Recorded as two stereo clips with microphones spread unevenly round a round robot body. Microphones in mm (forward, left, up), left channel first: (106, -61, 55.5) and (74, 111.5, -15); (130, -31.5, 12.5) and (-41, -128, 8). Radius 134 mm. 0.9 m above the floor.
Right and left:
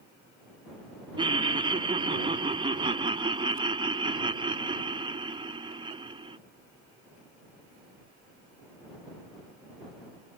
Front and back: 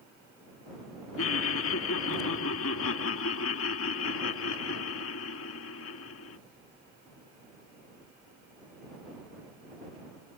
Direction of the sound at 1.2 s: 45° left.